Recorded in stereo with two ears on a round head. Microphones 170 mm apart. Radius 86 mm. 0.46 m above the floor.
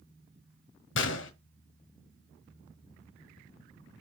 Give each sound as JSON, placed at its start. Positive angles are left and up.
{"t": 0.9, "sound": "a gunshot", "side_deg": 70, "distance_m": 1.2}